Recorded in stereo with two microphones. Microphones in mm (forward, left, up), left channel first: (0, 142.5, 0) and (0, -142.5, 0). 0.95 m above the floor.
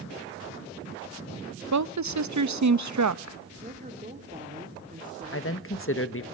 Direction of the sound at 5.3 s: 45° left (ahead or behind).